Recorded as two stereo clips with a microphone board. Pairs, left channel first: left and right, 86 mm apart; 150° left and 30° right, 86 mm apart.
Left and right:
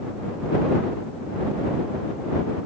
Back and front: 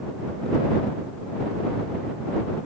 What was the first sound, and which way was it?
Only background noise.